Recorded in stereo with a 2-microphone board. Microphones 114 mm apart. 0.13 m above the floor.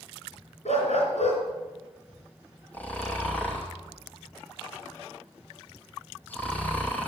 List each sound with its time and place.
0.7 s a dog barking: 75° left (ahead or behind), 4 m
2.7 s snoring: 15° left (ahead or behind), 2.5 m